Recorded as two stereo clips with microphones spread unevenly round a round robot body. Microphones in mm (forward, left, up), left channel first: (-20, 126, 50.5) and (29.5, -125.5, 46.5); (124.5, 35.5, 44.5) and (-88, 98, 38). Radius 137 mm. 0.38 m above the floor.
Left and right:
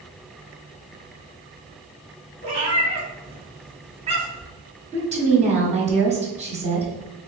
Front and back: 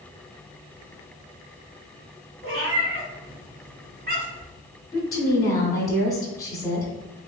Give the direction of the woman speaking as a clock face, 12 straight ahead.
3 o'clock.